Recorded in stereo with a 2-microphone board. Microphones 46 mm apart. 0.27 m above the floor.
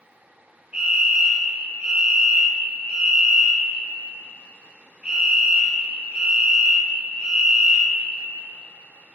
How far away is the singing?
No singing in this recording.